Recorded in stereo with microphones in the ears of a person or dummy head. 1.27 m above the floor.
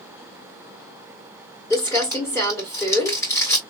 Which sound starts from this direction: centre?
Crumpling, at 1.7 s.